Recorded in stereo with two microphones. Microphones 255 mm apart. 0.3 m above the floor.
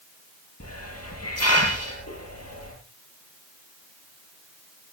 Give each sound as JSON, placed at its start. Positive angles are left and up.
{"t": 0.6, "sound": "a hiss", "side_deg": 70, "distance_m": 7.5}